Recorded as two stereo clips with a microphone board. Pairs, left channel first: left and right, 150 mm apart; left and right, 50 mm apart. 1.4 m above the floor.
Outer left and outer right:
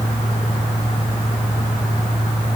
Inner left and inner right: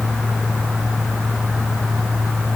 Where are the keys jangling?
I don't hear keys jangling.